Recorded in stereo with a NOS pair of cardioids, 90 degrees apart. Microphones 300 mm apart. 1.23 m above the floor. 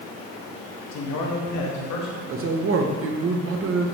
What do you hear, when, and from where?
0.9 s a man speaking: 65° left, 1.2 m; by 2.2 s 75° left, 2 m
2.3 s a man speaking: 50° right, 1.1 m